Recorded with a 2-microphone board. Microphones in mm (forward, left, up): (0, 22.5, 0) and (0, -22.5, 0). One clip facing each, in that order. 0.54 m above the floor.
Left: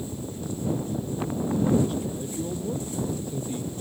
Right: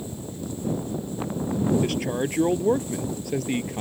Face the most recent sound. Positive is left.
turn(degrees=-85)